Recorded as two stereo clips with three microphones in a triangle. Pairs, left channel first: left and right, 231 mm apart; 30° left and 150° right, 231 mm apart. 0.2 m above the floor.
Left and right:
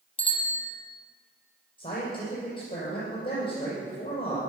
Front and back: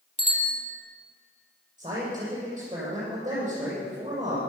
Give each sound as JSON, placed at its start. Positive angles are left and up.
{"t": 0.2, "sound": "a bicycle bell", "azimuth_deg": 155, "distance_m": 3.5}
{"t": 1.8, "sound": "a man speaking", "azimuth_deg": 140, "distance_m": 6.0}